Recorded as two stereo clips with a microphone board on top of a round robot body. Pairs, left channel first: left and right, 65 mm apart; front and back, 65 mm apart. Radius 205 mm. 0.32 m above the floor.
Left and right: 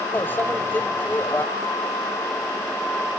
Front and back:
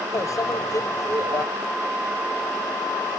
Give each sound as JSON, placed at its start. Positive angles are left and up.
{"t": 0.1, "sound": "a microwave", "azimuth_deg": 30}